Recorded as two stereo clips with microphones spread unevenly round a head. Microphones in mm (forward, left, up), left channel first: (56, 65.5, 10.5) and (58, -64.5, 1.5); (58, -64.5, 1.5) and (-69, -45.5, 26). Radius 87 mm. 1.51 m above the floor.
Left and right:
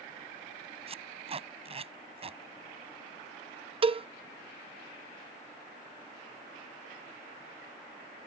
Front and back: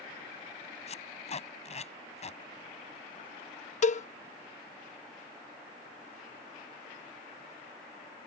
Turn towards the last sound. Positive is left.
turn(degrees=-40)